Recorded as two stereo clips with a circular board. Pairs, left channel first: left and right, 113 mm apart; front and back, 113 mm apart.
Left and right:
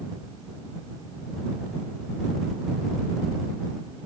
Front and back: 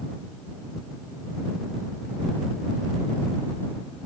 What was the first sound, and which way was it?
Only background noise.